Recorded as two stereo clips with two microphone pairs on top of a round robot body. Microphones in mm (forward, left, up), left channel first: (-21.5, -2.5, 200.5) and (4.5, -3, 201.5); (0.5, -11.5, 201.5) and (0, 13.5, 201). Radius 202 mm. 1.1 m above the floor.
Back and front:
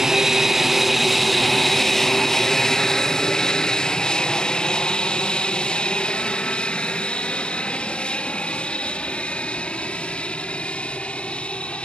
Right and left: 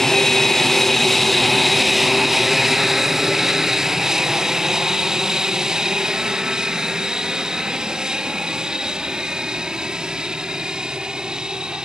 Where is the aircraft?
45° right; by 11.8 s 145° left.